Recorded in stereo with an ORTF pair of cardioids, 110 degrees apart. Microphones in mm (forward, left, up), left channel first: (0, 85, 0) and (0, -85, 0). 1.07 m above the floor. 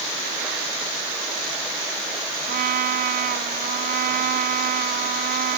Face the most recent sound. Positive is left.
turn(degrees=-60)